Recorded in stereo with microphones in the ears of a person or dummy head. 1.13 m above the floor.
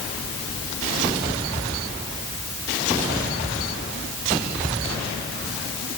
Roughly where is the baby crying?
I don't hear a baby crying.